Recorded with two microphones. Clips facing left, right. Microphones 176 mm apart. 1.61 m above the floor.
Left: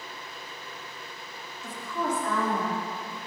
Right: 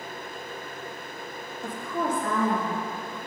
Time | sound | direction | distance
1.6 | a woman speaking | 65° right (ahead or behind) | 0.8 m